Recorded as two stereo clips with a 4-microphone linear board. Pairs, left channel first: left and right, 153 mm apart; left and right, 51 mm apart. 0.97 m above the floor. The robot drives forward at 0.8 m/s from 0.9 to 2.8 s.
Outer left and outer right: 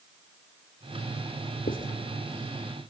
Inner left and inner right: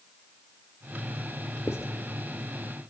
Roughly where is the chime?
No chime in this recording.